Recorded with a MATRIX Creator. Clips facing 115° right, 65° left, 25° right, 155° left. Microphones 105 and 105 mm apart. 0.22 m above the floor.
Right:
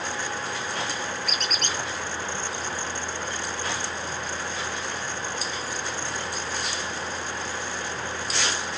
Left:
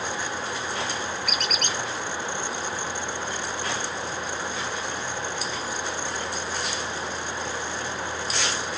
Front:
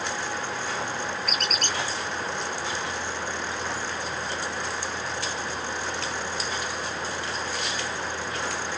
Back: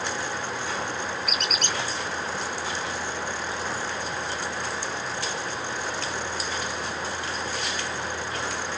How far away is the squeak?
About 1.6 m.